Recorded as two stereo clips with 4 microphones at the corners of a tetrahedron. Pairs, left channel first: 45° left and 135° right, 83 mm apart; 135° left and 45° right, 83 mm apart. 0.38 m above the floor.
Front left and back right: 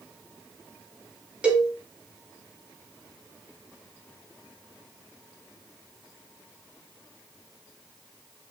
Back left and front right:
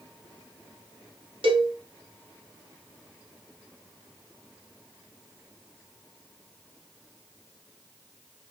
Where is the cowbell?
55° right, 0.6 m.